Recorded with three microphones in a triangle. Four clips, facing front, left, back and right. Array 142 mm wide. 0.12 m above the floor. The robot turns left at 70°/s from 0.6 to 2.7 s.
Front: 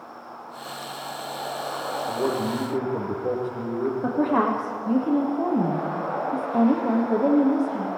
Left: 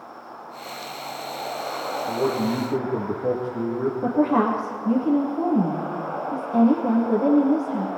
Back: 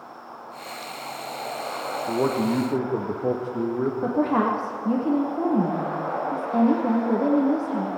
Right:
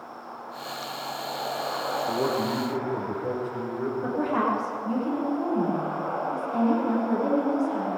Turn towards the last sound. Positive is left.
turn(degrees=150)